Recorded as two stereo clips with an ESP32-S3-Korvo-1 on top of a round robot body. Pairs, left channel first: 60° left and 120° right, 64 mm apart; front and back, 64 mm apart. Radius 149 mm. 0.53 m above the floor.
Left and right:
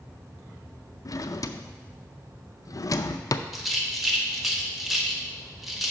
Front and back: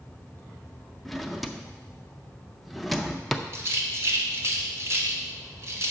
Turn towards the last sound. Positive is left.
turn(degrees=155)